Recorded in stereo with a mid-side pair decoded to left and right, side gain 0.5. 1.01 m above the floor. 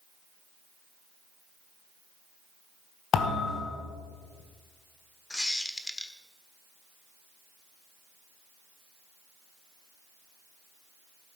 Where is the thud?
60° left, 3 m.